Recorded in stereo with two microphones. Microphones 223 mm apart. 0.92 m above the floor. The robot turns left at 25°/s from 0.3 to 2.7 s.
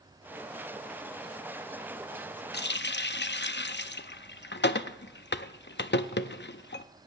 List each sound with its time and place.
2.5 s a running tap: 50° left (ahead or behind), 0.5 m; by 6.8 s 55° left (ahead or behind), 0.5 m